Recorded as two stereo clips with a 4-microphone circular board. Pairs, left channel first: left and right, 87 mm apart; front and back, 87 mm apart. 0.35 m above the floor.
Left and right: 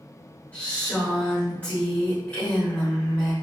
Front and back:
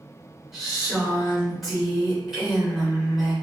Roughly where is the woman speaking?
Left.